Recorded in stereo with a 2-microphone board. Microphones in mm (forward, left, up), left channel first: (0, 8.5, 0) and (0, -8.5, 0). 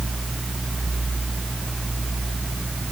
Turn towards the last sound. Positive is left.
No sound to turn to.